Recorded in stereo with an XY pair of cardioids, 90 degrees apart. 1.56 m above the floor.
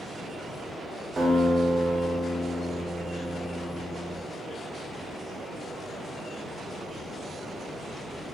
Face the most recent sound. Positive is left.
turn(degrees=-35)